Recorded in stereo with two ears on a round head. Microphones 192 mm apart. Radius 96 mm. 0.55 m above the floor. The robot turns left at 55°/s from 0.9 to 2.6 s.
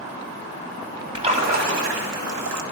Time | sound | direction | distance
1.1 | a splash | 25° right | 1.6 m